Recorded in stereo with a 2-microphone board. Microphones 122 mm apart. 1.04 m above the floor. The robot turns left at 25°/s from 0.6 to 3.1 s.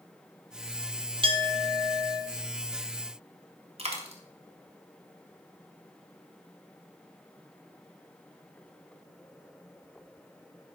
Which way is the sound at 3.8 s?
55° right (ahead or behind).